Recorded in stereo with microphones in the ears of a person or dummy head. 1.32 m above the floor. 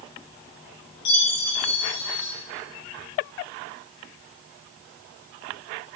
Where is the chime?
65° left (ahead or behind), 1.5 m.